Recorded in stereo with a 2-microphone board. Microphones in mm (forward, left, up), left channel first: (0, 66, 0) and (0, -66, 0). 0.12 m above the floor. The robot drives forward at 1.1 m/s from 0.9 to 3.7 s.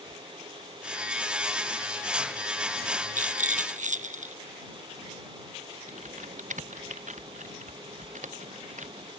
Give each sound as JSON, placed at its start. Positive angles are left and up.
{"t": 3.2, "sound": "a rattle", "side_deg": -85}
{"t": 5.9, "sound": "typing on a keyboard", "side_deg": -75}